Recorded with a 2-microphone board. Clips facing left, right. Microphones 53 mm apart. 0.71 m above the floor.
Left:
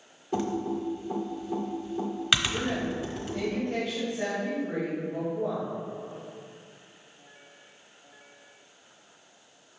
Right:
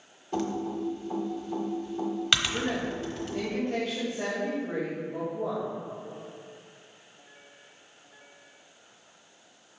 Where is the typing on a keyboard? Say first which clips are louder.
Left 1 dB; 10° left (ahead or behind), 1.0 m.